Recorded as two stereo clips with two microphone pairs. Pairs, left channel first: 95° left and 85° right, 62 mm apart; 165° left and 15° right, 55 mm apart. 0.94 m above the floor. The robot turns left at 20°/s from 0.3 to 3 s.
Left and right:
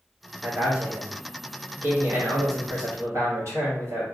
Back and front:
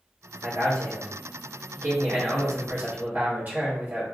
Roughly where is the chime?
I don't hear a chime.